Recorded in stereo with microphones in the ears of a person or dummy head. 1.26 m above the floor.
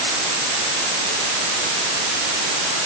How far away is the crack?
No crack in this recording.